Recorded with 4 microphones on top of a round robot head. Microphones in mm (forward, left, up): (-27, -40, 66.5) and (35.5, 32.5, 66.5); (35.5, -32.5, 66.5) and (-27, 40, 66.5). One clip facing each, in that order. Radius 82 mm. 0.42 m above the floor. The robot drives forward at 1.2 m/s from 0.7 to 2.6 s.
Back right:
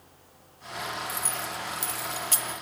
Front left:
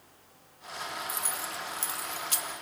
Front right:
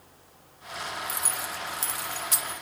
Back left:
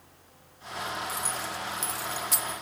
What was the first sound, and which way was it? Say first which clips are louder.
Keys jangling: back right 3 dB, back left 1 dB; 20° right.